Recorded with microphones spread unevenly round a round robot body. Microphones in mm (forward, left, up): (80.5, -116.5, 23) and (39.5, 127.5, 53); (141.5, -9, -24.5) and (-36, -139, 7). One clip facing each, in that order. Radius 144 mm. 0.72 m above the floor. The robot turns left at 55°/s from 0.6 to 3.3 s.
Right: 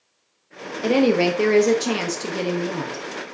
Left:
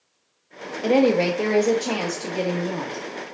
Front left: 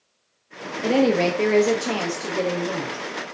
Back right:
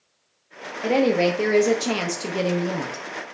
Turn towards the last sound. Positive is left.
turn(degrees=-155)